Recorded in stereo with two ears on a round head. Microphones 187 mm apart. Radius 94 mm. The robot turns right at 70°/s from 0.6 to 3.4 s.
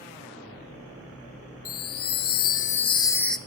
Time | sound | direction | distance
1.6 | a chime | 60° left | 0.5 m